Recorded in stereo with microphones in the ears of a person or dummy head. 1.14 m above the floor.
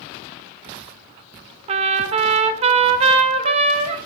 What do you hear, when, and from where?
1.7 s a trumpet: 30° right (ahead or behind), 0.5 m